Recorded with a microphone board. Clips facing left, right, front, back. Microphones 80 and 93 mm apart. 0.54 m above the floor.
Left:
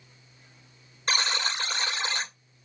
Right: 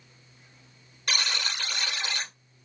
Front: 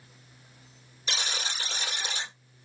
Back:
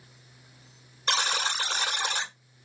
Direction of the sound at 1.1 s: 150° left.